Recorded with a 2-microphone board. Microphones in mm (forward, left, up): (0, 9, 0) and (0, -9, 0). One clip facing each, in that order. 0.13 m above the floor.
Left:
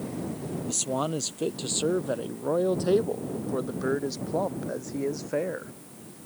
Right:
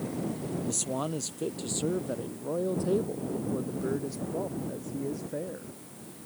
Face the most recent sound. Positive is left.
turn(degrees=65)  # may be behind; listen again after turning